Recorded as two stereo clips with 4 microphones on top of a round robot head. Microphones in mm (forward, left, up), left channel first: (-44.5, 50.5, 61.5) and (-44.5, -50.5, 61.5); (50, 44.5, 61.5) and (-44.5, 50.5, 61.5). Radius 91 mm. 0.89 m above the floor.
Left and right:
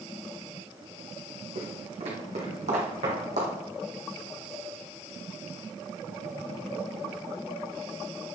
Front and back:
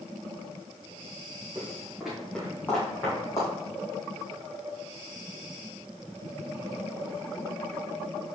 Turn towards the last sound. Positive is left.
turn(degrees=-70)